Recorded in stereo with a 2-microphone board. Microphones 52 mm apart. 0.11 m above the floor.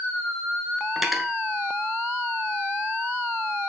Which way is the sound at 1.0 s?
5° right (ahead or behind).